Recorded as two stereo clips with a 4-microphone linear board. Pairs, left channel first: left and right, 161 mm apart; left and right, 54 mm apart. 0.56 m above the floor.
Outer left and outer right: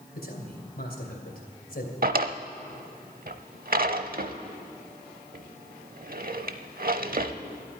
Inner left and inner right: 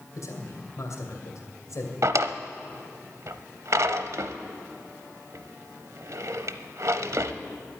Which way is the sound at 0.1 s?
70° left (ahead or behind).